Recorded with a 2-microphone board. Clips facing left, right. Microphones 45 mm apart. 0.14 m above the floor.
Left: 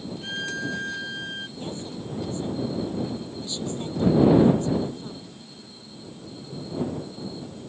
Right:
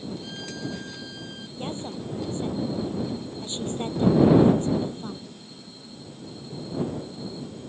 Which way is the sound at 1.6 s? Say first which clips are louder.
Right 1 dB; 35° right (ahead or behind).